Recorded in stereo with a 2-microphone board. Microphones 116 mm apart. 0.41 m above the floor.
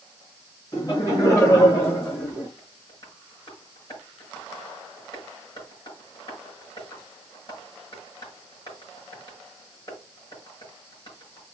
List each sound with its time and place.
0.7 s laughter: 35° left (ahead or behind), 5.5 m; by 2.5 s 20° left (ahead or behind), 4.5 m
2.6 s tapping: 40° left (ahead or behind), 5.5 m